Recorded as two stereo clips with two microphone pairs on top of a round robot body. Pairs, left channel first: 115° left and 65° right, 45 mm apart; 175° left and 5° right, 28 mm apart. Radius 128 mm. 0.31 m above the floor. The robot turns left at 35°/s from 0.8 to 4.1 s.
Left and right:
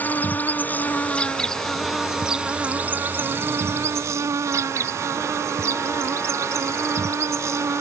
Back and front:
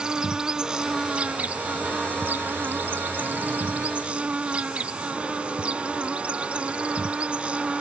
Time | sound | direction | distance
0.0 | an insect | 60° left | ?